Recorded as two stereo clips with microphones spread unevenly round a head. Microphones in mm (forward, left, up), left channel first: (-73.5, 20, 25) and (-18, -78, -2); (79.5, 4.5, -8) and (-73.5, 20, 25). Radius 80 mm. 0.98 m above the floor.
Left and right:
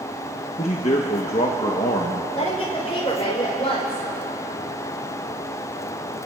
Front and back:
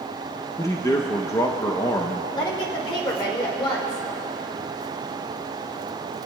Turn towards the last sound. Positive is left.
turn(degrees=60)